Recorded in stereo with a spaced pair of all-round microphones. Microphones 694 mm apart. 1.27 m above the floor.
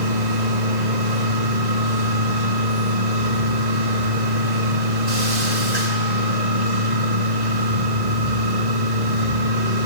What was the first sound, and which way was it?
A machine running, 65° right (ahead or behind).